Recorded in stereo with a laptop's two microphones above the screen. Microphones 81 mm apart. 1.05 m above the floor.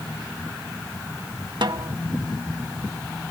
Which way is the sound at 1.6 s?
65° right (ahead or behind).